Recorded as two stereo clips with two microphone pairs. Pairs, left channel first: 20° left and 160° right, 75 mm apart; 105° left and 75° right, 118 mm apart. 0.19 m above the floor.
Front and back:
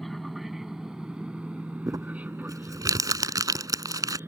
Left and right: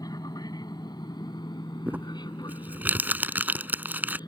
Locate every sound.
0.0 s an aircraft: 105° left; by 4.3 s 150° left
1.9 s crumpling: 150° right